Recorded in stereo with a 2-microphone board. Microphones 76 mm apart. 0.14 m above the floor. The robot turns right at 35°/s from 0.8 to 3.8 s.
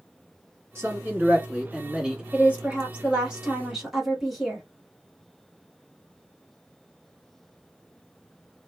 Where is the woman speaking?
20° right (ahead or behind), 1.2 m; by 4.7 s 5° right (ahead or behind), 1.2 m.